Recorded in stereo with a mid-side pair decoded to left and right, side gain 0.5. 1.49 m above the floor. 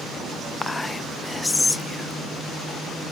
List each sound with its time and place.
0.6 s whispering: 20° left, 0.6 m